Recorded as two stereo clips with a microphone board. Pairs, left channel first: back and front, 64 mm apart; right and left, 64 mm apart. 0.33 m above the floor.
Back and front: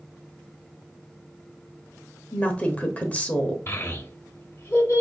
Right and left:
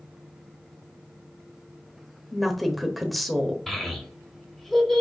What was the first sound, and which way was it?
A woman speaking, straight behind.